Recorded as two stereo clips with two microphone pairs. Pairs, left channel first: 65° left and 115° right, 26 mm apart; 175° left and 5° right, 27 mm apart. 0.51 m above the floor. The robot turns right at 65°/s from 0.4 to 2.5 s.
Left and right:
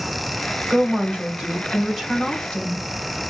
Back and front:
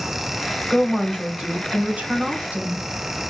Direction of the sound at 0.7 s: 100° right.